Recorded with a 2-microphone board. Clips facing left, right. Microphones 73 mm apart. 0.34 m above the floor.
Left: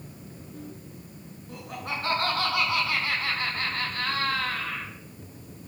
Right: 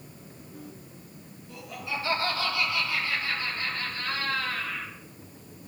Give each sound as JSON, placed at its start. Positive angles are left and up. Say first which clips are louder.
{"t": 1.5, "sound": "laughter", "louder": "left 1 dB", "side_deg": 45, "distance_m": 3.5}